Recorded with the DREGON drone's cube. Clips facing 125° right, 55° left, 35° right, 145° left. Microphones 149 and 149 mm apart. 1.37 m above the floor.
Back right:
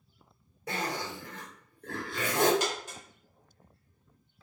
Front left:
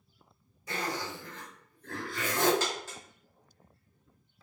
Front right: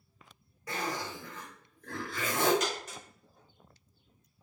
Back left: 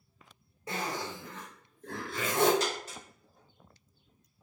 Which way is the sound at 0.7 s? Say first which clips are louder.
Back right 1 dB, even; 150° right.